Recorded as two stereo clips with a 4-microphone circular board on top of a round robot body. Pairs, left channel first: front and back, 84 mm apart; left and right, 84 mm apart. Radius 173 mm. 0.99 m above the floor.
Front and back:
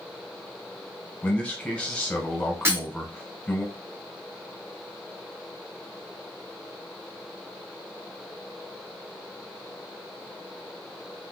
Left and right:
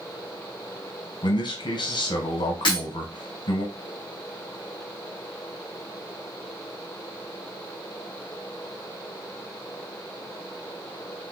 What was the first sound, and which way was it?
A man speaking, 75° left.